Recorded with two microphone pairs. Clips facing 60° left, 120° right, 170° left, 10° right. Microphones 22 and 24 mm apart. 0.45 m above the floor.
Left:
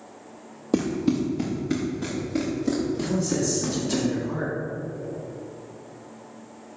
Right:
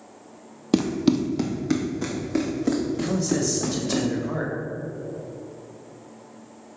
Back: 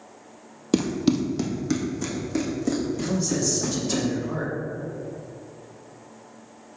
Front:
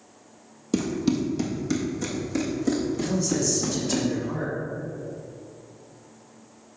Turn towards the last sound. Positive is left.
turn(degrees=-120)